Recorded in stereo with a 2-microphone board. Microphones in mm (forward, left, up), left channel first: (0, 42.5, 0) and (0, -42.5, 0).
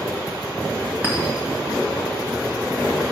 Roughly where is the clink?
Centre.